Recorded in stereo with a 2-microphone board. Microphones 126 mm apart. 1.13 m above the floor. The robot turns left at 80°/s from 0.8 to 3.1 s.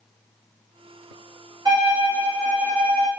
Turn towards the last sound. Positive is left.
turn(degrees=-145)